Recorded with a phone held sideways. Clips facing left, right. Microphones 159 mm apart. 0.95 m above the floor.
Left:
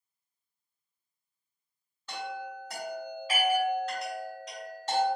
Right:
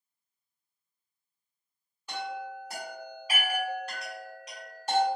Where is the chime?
10° right (ahead or behind), 1.6 m.